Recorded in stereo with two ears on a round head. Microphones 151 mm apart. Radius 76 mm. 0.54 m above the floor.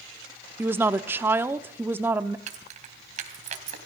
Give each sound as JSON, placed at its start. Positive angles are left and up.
{"t": 0.6, "sound": "a woman speaking", "side_deg": -15, "distance_m": 0.7}
{"t": 2.5, "sound": "keys jangling", "side_deg": -45, "distance_m": 3.0}